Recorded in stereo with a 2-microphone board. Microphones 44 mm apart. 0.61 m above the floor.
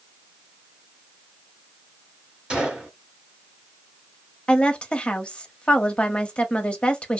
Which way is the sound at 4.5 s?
30° left (ahead or behind).